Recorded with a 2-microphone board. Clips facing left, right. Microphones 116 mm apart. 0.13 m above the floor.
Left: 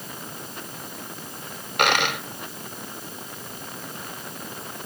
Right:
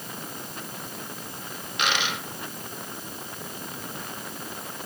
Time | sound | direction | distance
1.8 | a dropped coin | 60° left (ahead or behind) | 1.2 m